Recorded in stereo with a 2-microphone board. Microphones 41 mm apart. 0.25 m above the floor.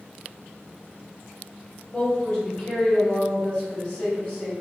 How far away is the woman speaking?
About 0.9 m.